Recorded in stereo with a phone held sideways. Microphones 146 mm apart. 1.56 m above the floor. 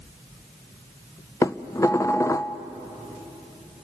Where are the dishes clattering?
20° left (ahead or behind), 0.5 m.